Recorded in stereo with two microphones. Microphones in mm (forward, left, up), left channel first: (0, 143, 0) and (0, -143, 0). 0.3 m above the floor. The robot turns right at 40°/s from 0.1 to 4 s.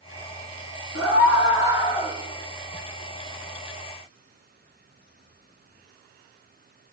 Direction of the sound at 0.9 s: 115° left.